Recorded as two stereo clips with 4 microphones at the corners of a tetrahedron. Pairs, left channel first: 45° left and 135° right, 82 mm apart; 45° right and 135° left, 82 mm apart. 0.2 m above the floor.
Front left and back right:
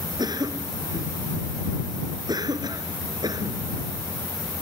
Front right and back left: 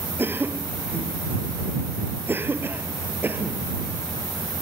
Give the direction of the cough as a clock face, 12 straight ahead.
5 o'clock.